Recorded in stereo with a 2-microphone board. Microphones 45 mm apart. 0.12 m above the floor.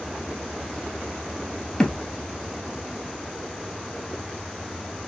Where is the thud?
15° left (ahead or behind), 0.9 m.